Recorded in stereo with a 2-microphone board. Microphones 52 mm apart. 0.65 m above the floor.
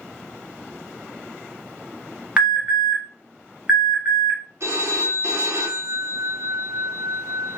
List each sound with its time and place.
2.4 s an alarm: 20° right (ahead or behind), 1.9 m
4.6 s a phone ringing: 65° right (ahead or behind), 1.3 m